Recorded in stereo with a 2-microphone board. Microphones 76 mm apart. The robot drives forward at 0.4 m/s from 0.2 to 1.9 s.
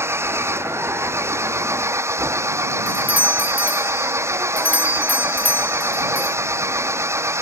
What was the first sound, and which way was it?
An engine running, 35° right (ahead or behind).